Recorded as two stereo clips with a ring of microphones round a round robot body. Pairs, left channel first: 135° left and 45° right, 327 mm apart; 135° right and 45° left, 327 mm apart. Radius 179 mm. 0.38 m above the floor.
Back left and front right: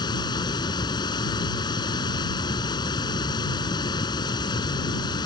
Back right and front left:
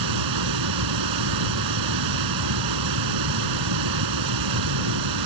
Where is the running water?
60° left.